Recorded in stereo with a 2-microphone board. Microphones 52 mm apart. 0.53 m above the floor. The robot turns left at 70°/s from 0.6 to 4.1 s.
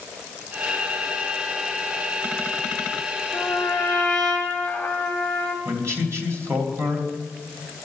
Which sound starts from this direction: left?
A trumpet, at 3.3 s.